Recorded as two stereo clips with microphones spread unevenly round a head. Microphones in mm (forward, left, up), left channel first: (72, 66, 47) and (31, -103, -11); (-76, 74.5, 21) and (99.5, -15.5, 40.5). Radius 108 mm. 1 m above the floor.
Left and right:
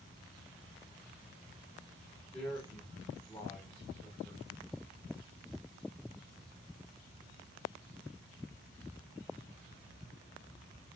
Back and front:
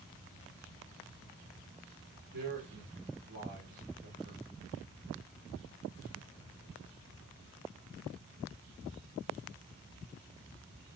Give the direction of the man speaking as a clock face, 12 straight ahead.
12 o'clock.